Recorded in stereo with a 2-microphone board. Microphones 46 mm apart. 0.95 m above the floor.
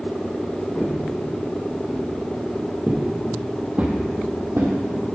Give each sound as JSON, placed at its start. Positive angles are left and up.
{"t": 0.8, "sound": "footsteps", "side_deg": 35, "distance_m": 3.0}